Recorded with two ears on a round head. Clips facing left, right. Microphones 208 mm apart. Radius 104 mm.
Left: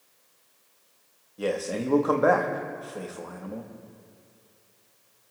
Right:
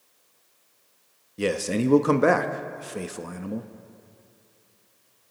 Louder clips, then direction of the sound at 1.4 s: Right 4 dB; 35° right (ahead or behind).